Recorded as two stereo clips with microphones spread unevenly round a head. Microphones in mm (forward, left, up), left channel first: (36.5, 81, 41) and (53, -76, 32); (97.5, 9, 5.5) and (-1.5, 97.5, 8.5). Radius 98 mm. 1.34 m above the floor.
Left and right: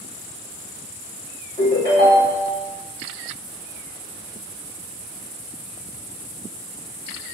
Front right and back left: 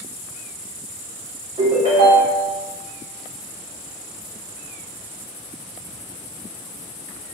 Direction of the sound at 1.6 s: 145° left.